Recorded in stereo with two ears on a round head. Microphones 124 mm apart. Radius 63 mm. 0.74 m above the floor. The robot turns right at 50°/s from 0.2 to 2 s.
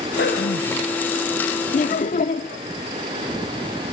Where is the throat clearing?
75° left, 8.5 m; by 0.8 s 105° left, 8.5 m.